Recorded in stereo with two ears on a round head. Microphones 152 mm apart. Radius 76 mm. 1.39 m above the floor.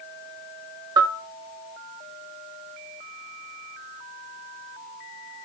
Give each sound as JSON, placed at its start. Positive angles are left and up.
{"t": 1.0, "sound": "a bell", "side_deg": -25, "distance_m": 0.8}